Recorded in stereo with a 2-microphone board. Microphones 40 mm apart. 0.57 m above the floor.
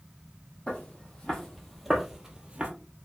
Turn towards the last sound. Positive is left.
turn(degrees=-35)  # may be behind; listen again after turning